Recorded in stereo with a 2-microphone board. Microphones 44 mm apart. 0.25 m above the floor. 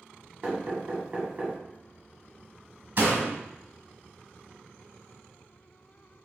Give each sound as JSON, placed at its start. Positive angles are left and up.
{"t": 0.4, "sound": "knocking", "side_deg": -30, "distance_m": 1.3}
{"t": 3.0, "sound": "a door slam", "side_deg": -50, "distance_m": 1.3}